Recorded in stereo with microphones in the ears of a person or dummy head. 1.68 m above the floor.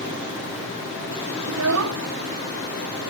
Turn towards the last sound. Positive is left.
turn(degrees=-65)  # may be behind; listen again after turning